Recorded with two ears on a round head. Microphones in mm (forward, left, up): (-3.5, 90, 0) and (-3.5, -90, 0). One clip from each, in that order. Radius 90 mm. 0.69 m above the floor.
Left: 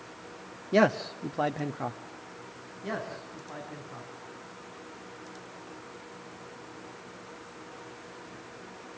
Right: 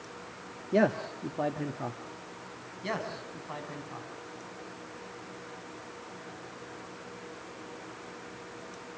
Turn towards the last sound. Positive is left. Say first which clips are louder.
# right 1 dB
turn(degrees=-65)  # may be behind; listen again after turning